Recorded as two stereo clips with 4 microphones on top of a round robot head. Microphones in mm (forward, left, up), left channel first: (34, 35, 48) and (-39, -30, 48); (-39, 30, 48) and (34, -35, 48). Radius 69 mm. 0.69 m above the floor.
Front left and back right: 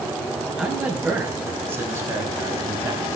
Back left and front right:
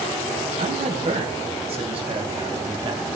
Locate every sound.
0.6 s a man speaking: 55° right, 4.5 m; by 3.2 s 85° right, 4.5 m